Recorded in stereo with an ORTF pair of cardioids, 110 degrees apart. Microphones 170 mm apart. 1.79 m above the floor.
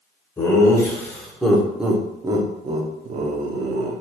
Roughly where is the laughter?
Ahead.